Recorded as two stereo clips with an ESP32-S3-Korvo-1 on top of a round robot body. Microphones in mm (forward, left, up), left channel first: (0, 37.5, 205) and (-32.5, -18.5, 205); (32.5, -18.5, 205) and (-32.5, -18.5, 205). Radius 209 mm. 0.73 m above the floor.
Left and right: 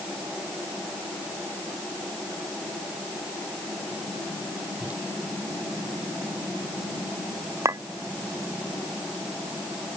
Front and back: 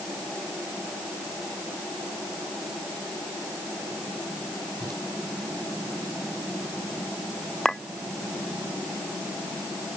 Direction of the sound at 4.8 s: 170° left.